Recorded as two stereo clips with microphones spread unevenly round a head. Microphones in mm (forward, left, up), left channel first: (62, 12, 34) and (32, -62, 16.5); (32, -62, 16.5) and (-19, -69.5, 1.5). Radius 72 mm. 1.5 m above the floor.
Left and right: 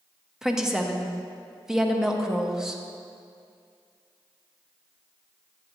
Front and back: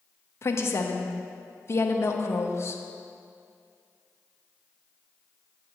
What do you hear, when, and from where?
0.4 s a woman speaking: 35° right, 0.8 m